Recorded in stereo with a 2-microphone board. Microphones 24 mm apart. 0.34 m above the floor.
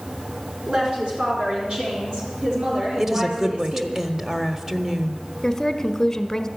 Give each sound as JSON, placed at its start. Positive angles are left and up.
{"t": 0.7, "sound": "a woman speaking", "side_deg": -45, "distance_m": 4.0}
{"t": 3.0, "sound": "a woman speaking", "side_deg": -20, "distance_m": 1.2}
{"t": 5.4, "sound": "a woman speaking", "side_deg": 20, "distance_m": 1.1}